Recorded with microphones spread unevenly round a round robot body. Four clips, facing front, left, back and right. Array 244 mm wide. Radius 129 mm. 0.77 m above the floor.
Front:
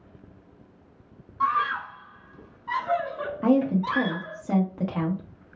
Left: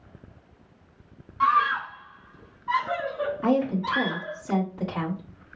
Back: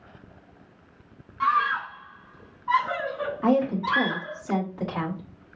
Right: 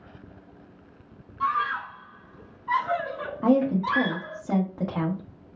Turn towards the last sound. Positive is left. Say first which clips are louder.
# right 3 dB, front 1 dB
turn(degrees=-40)